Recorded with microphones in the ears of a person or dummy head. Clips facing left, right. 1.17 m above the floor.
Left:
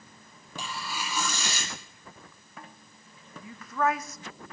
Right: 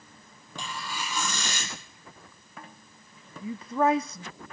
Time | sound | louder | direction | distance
0.6 | tearing paper | even | 10° left (ahead or behind) | 2.5 m
3.4 | a woman speaking | right 4 dB | 20° right (ahead or behind) | 0.5 m